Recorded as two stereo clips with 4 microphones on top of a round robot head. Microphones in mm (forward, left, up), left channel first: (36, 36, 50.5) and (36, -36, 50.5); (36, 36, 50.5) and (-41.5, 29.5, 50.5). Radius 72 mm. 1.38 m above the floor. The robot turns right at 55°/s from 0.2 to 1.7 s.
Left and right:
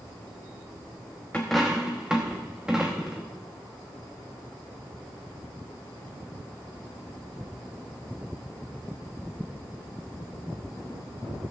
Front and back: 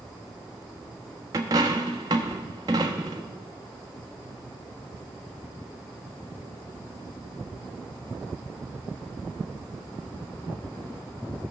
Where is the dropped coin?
165° left, 0.8 m; by 3.3 s 175° right, 0.8 m.